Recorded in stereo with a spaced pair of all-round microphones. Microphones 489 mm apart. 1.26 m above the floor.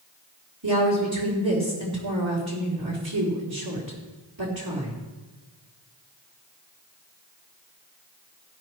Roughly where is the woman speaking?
Right.